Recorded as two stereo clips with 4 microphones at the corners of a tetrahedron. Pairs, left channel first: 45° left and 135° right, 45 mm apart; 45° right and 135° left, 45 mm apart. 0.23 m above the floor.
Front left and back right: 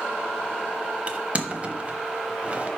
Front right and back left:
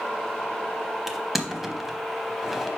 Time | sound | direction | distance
1.1 | crushing | 150° right | 0.7 m